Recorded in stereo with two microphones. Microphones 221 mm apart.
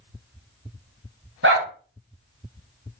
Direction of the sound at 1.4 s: 75° right (ahead or behind).